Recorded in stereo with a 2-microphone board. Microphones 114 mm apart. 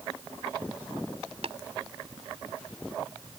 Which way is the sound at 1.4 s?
70° right (ahead or behind).